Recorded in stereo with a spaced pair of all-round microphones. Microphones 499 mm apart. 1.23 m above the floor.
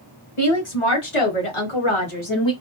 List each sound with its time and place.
0.4 s a woman speaking: 75° left (ahead or behind), 1.7 m; by 2.5 s 60° left (ahead or behind), 1.6 m